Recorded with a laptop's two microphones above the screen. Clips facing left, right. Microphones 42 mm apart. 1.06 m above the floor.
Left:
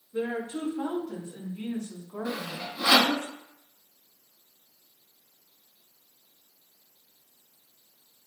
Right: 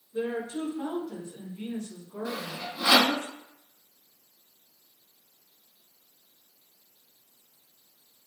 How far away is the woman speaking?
About 2 m.